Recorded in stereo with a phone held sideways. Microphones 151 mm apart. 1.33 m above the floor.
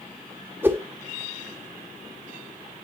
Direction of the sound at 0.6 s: 15° right (ahead or behind).